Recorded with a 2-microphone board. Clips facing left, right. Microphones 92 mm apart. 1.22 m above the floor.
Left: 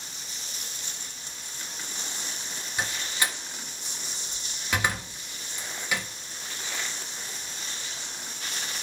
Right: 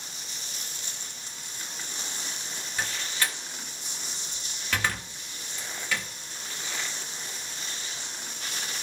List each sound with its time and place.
2.8 s a door slam: 15° left (ahead or behind), 1.5 m